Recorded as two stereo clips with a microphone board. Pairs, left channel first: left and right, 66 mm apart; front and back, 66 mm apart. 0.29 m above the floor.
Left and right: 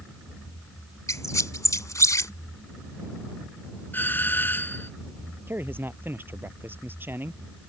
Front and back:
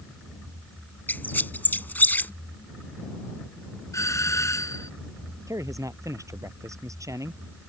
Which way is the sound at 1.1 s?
60° left.